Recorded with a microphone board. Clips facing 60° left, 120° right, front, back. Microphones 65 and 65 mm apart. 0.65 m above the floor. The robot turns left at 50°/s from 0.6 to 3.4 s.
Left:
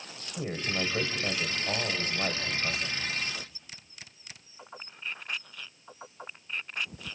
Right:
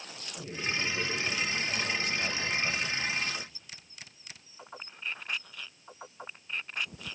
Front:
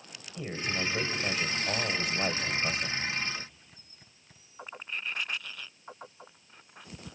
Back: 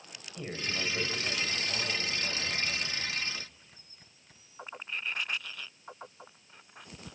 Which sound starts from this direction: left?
A man speaking, at 0.4 s.